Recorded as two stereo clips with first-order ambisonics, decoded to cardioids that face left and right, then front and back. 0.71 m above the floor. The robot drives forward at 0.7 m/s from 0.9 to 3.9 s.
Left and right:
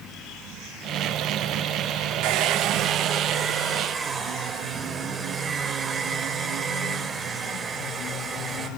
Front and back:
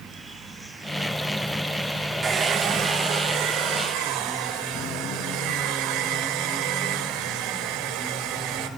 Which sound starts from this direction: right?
A hair dryer, at 2.2 s.